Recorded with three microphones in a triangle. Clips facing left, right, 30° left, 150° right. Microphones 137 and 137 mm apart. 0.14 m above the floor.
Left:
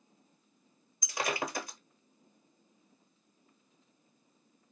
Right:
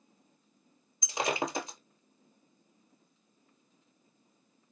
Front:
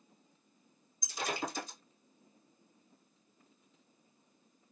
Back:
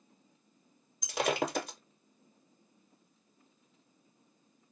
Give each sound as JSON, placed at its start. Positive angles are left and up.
{"t": 1.0, "sound": "breaking glass", "azimuth_deg": -160, "distance_m": 0.9}